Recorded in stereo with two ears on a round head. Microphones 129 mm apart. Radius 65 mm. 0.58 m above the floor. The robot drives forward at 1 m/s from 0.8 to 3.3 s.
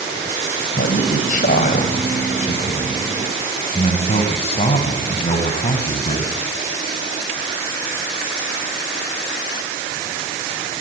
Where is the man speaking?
70° left (ahead or behind), 3.5 m; by 6.4 s 45° left (ahead or behind), 4.5 m.